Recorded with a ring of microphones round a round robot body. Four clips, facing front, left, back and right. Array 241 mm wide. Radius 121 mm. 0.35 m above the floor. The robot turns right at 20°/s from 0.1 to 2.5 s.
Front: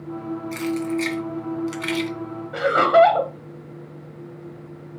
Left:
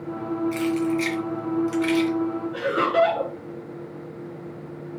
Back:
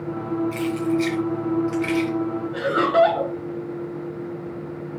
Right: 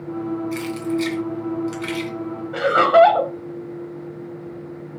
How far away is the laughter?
About 2.5 m.